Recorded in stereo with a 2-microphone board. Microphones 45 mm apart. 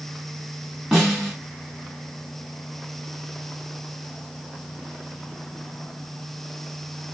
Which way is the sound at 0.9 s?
5° left (ahead or behind).